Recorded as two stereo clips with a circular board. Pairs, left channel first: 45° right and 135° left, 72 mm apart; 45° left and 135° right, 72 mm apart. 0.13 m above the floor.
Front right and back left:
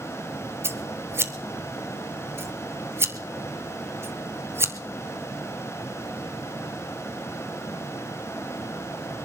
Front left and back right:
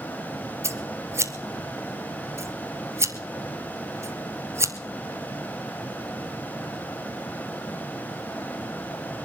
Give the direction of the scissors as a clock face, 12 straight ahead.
6 o'clock.